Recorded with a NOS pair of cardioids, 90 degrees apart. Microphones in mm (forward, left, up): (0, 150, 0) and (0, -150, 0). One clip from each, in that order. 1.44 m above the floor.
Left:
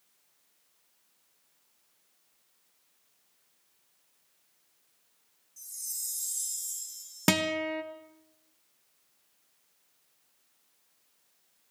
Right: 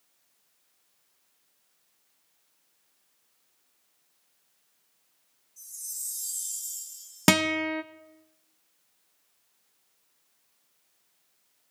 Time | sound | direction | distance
5.6 | a chime | 20° left | 5 m
7.3 | a guitar | 20° right | 0.8 m